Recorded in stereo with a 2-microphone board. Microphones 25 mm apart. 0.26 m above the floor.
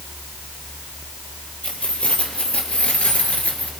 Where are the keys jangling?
60° left (ahead or behind), 4.5 m; by 3.7 s 75° left (ahead or behind), 2.5 m.